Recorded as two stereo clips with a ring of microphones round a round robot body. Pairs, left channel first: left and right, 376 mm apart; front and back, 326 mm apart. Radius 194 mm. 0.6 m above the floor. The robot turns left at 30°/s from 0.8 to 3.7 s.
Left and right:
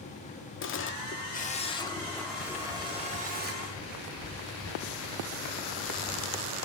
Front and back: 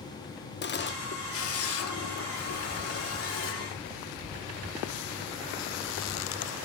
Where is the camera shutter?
45° left, 1.4 m; by 3.6 s 40° right, 1.4 m.